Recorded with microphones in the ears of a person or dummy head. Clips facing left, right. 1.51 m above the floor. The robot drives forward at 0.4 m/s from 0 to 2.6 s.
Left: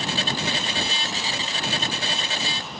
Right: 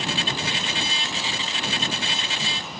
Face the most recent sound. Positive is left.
No sound to turn to.